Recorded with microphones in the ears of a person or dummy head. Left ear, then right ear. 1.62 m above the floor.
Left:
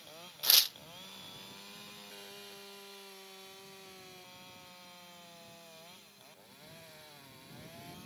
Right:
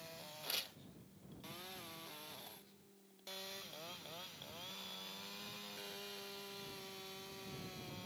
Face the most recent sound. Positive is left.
turn(degrees=40)  # may be behind; listen again after turning